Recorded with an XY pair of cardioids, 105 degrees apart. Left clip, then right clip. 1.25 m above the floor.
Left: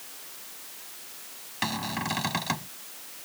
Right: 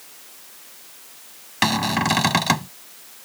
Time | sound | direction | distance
1.6 | a cupboard door | 65° right | ?